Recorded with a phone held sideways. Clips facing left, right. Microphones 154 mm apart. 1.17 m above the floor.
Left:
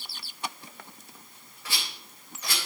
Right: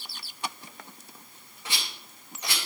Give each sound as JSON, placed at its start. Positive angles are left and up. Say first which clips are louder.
{"t": 1.6, "sound": "a rattle", "louder": "even", "side_deg": -20, "distance_m": 4.0}